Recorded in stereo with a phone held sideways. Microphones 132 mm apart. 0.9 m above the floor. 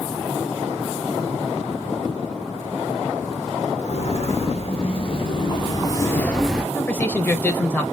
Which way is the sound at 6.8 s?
15° left (ahead or behind).